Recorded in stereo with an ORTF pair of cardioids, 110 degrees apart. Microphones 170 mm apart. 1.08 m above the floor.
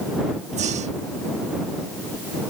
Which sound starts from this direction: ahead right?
Breathing, at 0.5 s.